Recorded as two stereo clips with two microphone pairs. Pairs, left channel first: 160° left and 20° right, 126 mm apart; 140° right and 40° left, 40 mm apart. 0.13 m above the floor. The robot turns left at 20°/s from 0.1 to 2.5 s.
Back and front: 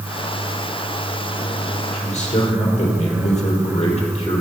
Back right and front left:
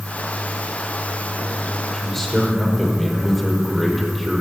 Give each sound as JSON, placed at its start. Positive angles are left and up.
{"t": 1.9, "sound": "a man speaking", "azimuth_deg": 150, "distance_m": 4.5}